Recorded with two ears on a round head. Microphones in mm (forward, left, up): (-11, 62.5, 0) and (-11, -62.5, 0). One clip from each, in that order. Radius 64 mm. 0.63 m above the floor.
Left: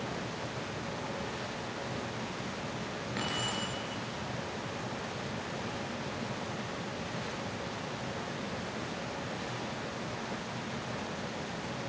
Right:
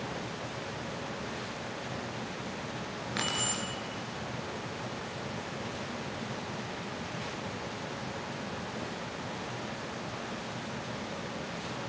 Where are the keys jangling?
55° right (ahead or behind), 6 m.